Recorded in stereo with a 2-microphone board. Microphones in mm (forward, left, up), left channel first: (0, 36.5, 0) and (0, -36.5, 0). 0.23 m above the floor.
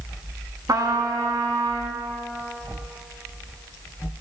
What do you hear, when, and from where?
0.7 s a trumpet: 65° right (ahead or behind), 0.8 m